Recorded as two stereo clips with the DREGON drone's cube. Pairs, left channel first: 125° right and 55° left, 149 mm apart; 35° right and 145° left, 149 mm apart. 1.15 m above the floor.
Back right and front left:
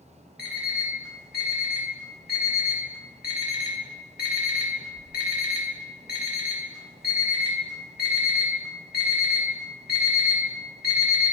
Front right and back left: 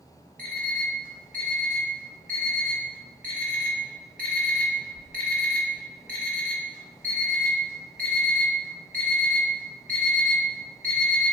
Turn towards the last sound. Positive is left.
turn(degrees=140)